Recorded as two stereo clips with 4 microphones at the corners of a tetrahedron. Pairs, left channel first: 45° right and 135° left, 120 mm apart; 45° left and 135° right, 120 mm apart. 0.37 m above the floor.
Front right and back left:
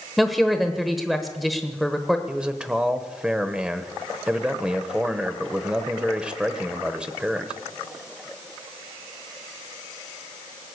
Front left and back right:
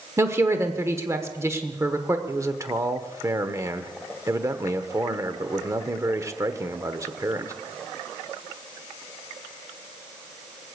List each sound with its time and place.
0.2 s a woman speaking: 135° right, 1.0 m
2.3 s a man speaking: 155° right, 0.9 m